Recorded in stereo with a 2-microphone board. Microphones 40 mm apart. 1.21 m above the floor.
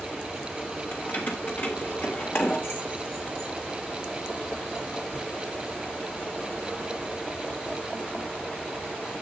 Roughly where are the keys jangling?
Left.